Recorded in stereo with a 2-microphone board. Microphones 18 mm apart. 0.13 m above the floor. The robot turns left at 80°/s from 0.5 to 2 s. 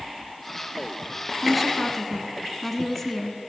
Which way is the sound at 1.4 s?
5° right (ahead or behind).